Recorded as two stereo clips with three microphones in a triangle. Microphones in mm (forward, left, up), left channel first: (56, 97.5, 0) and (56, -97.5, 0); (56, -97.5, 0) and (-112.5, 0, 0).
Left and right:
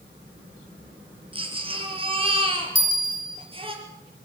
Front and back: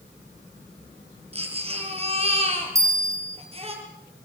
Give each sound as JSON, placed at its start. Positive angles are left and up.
{"t": 1.3, "sound": "a baby crying", "azimuth_deg": -150, "distance_m": 4.5}
{"t": 2.8, "sound": "a bell", "azimuth_deg": 75, "distance_m": 3.0}